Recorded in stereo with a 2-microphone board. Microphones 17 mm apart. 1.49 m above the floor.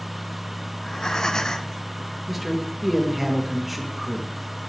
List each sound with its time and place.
0.8 s breathing: 35° left (ahead or behind), 0.8 m
2.3 s a man speaking: 10° right (ahead or behind), 3 m